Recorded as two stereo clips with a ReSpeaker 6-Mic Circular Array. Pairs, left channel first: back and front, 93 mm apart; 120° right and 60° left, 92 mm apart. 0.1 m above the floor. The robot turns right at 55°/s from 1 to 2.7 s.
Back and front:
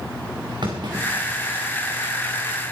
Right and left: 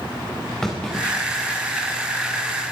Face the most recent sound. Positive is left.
turn(degrees=55)